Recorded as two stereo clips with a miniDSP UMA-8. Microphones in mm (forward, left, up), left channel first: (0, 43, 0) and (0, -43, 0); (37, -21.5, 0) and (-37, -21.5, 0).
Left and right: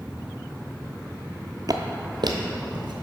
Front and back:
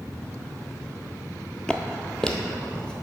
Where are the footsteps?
70° right, 0.5 m; by 2.9 s 80° right, 1.2 m.